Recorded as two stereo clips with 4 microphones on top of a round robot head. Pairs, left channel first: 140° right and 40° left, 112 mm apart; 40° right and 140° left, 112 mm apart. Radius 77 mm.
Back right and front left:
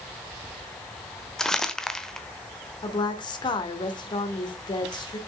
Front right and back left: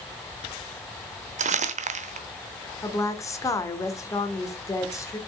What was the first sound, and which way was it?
Crumpling, 135° left.